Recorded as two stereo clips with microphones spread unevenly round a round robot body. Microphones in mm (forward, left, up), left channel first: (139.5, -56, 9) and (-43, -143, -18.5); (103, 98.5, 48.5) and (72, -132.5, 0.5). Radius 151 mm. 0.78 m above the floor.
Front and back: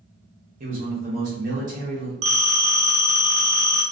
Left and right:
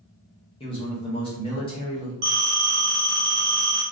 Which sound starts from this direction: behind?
A man speaking, at 0.6 s.